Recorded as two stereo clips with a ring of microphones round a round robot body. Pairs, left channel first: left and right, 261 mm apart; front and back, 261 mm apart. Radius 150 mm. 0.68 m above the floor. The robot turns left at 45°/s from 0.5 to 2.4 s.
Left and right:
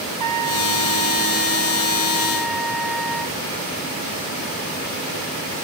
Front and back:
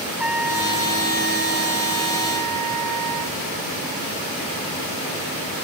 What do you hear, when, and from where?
0.2 s a trumpet: 95° right; by 3.4 s straight behind